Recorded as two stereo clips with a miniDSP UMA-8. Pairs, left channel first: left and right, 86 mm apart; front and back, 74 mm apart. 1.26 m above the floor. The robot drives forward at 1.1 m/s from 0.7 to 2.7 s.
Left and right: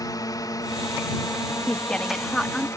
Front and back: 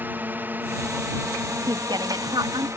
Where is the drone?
120° left; by 2.8 s 140° left.